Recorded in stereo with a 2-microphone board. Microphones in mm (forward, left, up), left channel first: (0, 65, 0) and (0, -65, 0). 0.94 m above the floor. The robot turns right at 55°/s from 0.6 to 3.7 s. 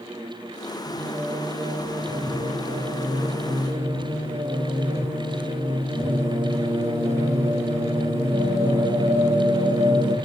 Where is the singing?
Straight behind, 9.5 m; by 10.2 s 25° right, 9.5 m.